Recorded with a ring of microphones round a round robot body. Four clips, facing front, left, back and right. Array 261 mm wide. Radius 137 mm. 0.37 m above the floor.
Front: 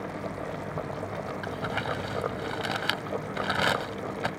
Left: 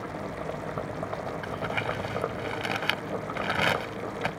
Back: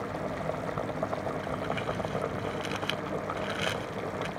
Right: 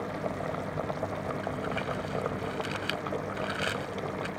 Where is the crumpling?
50° left.